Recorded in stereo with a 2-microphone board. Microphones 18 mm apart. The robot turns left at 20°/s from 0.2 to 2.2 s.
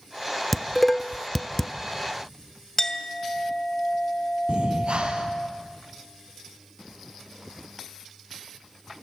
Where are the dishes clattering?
5° left (ahead or behind), 0.7 m; by 1.7 s 20° left (ahead or behind), 0.7 m.